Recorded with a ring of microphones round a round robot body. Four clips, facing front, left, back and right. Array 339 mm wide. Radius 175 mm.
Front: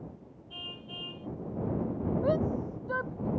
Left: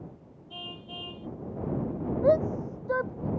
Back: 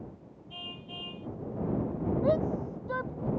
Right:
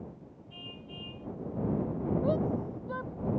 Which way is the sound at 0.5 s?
70° left.